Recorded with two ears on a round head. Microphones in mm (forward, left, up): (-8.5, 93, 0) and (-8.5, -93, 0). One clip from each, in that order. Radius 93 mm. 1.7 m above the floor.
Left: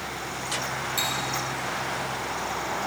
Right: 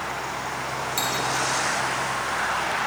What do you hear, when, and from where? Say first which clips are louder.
1.0 s cutlery clinking: right 1 dB; 5° right (ahead or behind), 1.2 m